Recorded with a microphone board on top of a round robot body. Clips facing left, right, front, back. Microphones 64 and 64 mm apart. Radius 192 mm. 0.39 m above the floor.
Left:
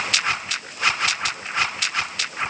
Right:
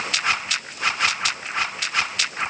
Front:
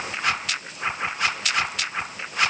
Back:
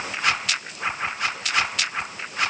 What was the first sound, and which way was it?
Only background noise.